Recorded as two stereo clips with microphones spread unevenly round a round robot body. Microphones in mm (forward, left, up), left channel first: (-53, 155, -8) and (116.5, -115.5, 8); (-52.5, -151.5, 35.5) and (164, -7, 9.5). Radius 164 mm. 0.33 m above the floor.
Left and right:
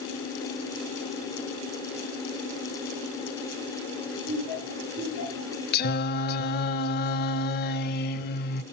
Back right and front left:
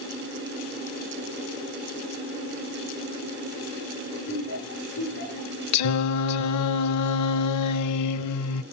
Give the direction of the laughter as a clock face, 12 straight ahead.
6 o'clock.